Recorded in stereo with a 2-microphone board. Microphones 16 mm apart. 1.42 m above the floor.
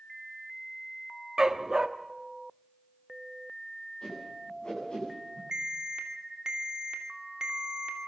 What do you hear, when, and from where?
1.4 s a dog barking: 40° right (ahead or behind), 1.1 m
4.0 s a whoosh: 60° left (ahead or behind), 9.5 m
5.5 s an alarm: 50° right (ahead or behind), 2.5 m